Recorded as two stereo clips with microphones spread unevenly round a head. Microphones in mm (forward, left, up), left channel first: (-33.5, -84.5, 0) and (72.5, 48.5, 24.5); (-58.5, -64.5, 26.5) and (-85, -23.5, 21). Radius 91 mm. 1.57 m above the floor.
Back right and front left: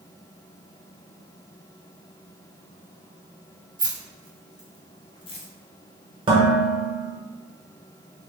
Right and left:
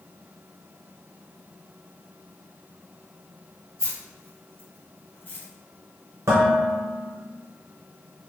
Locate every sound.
3.8 s keys jangling: 10° right, 1.3 m; by 5.5 s 85° right, 0.7 m
6.3 s dishes clattering: 95° left, 0.8 m